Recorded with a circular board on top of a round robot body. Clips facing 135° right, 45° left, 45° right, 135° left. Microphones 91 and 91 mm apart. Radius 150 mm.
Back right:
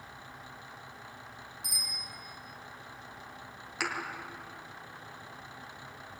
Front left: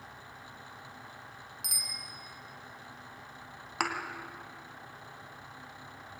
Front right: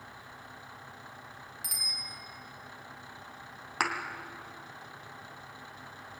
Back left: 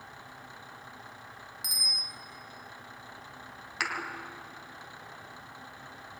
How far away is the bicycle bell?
About 5 m.